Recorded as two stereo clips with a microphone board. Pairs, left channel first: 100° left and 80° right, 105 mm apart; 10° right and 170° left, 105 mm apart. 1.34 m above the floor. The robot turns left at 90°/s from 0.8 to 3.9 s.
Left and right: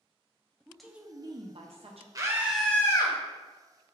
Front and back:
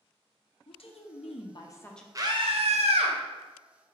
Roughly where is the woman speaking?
Ahead.